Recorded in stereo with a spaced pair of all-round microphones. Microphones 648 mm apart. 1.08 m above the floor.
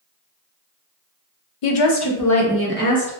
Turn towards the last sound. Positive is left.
turn(degrees=10)  # may be behind; listen again after turning